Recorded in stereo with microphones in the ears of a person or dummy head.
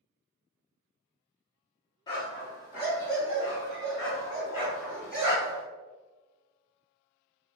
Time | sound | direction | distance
2.1 | a dog barking | 25° left (ahead or behind) | 1.0 m